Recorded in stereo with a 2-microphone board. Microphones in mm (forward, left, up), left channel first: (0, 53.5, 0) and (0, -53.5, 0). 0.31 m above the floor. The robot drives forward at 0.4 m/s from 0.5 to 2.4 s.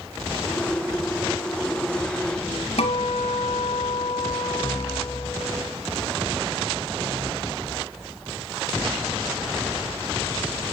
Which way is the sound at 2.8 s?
75° left (ahead or behind).